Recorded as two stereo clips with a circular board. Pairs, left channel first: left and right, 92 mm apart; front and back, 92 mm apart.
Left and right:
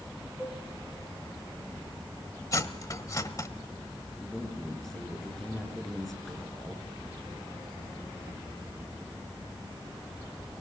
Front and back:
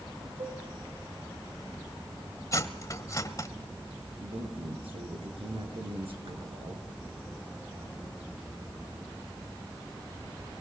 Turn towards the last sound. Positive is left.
turn(degrees=175)